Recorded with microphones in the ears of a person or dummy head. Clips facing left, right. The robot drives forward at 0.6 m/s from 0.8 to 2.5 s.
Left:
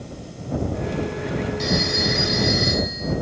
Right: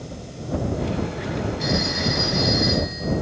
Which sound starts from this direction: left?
A phone ringing, at 1.6 s.